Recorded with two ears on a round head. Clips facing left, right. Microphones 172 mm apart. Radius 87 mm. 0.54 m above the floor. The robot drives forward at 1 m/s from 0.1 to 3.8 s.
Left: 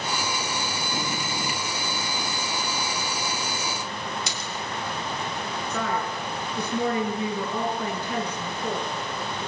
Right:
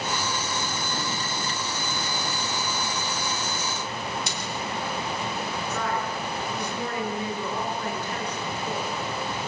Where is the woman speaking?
75° left (ahead or behind), 8.5 m.